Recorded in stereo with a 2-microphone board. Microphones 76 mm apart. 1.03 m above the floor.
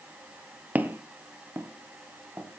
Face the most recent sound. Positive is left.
turn(degrees=-35)  # may be behind; listen again after turning